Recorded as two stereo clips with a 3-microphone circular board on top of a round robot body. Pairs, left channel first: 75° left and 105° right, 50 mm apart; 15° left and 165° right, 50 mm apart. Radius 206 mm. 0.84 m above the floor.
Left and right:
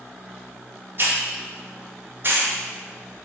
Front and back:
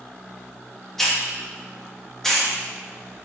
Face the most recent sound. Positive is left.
turn(degrees=-70)